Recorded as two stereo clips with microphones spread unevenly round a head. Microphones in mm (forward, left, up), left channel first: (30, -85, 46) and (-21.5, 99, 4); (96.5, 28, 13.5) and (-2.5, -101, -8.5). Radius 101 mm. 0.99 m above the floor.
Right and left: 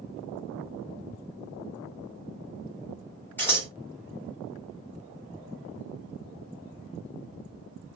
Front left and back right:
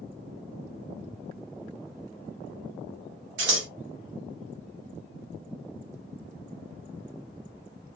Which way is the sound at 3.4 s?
150° right.